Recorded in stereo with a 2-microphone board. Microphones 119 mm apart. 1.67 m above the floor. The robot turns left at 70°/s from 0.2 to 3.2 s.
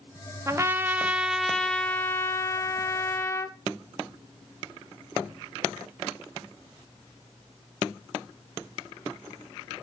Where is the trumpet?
25° right (ahead or behind), 0.6 m; by 3.6 s 20° left (ahead or behind), 0.6 m.